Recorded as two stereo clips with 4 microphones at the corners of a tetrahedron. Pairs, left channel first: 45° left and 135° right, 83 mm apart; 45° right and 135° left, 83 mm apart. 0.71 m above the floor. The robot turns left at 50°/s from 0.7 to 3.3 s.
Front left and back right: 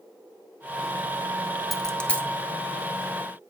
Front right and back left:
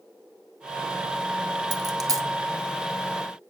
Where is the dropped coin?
135° left, 0.9 m; by 2.3 s 105° left, 0.9 m.